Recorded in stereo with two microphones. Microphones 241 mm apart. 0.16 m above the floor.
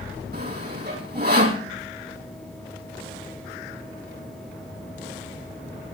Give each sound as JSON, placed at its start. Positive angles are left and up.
{"t": 0.3, "sound": "sawing", "side_deg": -45, "distance_m": 4.0}